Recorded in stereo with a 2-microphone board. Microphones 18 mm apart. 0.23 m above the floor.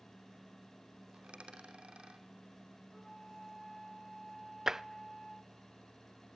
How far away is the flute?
About 7 m.